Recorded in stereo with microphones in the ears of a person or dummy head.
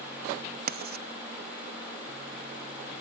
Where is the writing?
40° right (ahead or behind), 0.7 m.